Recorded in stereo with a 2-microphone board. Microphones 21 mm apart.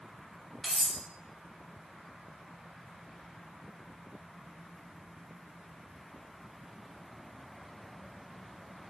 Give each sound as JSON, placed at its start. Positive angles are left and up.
{"t": 0.6, "sound": "cutlery clinking", "side_deg": 30, "distance_m": 0.7}